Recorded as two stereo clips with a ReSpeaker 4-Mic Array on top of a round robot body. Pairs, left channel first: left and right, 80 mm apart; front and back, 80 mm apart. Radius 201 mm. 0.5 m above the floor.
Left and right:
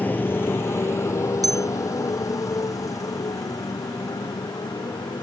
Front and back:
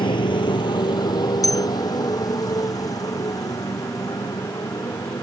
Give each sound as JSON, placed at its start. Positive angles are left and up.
{"t": 0.0, "sound": "a motorcycle", "azimuth_deg": 20}
{"t": 1.4, "sound": "a bell", "azimuth_deg": -45}